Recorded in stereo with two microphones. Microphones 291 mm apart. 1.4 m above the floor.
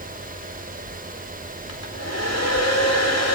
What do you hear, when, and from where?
1.7 s a hair dryer: 60° left (ahead or behind), 5 m